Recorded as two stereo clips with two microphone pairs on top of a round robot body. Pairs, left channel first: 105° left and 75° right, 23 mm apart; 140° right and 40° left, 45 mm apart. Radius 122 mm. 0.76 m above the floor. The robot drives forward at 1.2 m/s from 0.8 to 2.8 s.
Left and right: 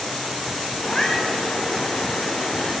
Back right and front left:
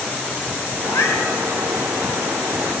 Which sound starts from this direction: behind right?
A cat meowing, at 0.8 s.